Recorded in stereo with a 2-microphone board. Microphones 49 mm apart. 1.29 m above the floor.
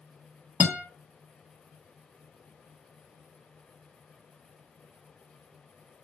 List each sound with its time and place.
0.6 s a guitar: 25° right (ahead or behind), 0.8 m